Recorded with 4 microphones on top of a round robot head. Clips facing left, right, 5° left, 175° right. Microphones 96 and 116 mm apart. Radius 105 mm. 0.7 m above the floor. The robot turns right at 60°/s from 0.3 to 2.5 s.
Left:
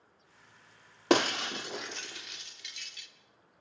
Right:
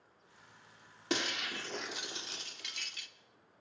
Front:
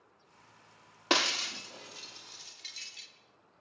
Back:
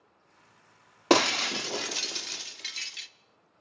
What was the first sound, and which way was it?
Breaking glass, 135° left.